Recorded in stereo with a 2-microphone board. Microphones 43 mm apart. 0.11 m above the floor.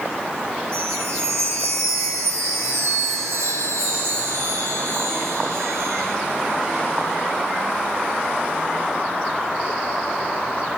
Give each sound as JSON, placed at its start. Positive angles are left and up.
{"t": 0.7, "sound": "a chime", "side_deg": -80, "distance_m": 10.0}